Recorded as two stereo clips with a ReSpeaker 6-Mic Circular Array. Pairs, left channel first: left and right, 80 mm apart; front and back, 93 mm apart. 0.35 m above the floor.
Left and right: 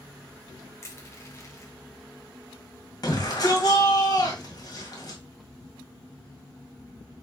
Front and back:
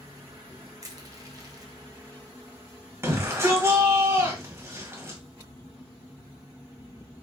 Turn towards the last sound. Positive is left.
turn(degrees=120)